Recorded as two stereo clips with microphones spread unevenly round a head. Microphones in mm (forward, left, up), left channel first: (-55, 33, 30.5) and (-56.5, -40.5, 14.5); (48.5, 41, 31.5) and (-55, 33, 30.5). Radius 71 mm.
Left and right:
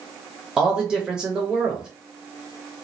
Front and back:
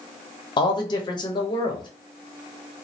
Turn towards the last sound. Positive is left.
turn(degrees=-25)